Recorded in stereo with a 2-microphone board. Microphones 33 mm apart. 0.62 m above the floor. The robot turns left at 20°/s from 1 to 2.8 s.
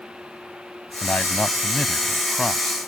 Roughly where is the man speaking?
Ahead left.